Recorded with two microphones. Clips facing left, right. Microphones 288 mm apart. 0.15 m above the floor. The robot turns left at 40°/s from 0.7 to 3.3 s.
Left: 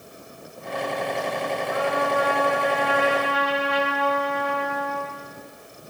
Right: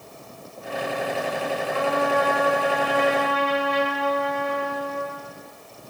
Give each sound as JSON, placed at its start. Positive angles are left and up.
{"t": 1.7, "sound": "a trumpet", "azimuth_deg": 170, "distance_m": 9.0}